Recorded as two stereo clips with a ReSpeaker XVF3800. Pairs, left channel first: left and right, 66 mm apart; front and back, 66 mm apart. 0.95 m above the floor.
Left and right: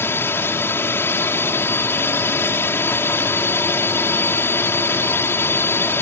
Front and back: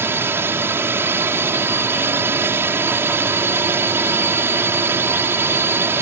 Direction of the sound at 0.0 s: 135° left.